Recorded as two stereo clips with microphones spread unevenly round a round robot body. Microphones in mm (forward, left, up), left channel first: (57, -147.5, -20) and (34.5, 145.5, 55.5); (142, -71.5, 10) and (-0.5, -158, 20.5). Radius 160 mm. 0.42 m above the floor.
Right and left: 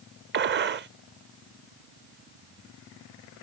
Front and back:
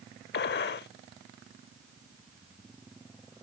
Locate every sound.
0.3 s a gunshot: 35° left